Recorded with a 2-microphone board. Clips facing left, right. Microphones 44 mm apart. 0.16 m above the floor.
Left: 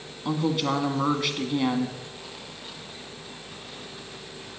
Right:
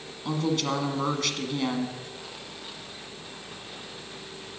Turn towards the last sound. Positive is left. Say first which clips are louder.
# left 2 dB
turn(degrees=15)  # may be behind; listen again after turning